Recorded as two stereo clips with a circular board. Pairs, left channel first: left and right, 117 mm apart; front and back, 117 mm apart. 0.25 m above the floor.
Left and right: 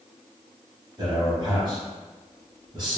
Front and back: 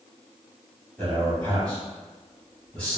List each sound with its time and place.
1.0 s a man speaking: 75° right, 1.8 m